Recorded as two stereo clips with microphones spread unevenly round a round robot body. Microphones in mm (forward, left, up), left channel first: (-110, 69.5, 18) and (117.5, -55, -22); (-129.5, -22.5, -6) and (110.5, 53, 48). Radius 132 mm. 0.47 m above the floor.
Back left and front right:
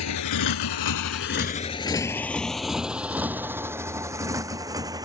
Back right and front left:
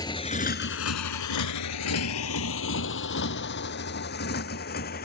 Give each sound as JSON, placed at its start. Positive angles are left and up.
{"t": 0.0, "sound": "a motorcycle", "azimuth_deg": 120}